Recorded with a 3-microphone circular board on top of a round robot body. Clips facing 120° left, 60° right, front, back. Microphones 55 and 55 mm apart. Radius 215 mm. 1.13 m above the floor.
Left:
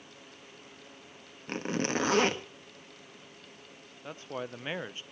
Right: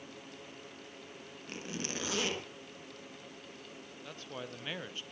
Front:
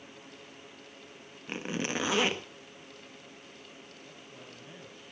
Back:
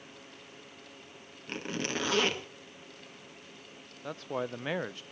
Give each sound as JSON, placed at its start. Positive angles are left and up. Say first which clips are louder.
{"t": 1.5, "sound": "a zipper", "louder": "left 10 dB, front 1 dB", "azimuth_deg": 75, "distance_m": 1.7}
{"t": 4.0, "sound": "a man speaking", "louder": "left 6 dB, back 14 dB", "azimuth_deg": -175, "distance_m": 0.7}